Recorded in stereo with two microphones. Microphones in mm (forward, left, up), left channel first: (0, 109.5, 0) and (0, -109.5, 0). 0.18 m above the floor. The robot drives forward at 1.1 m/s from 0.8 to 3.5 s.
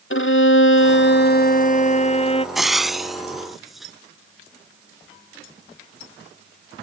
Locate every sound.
0.1 s a violin: 70° left (ahead or behind); by 2.5 s 25° left (ahead or behind)
2.5 s frying: centre (ahead or behind)